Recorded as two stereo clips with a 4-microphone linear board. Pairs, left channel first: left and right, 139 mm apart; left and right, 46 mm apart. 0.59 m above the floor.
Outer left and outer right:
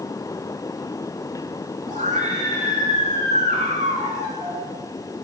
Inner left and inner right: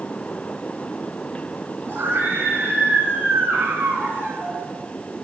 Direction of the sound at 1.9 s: 75° right (ahead or behind).